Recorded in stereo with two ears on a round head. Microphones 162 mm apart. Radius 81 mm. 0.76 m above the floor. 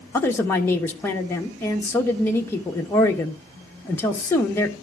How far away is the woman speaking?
About 1.0 m.